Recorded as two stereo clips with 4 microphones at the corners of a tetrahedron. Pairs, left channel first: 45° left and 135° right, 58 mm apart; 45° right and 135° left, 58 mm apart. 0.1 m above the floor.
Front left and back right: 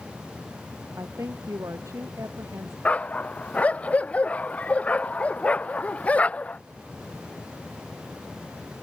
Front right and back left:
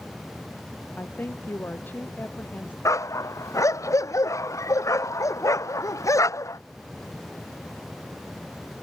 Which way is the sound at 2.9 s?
20° right.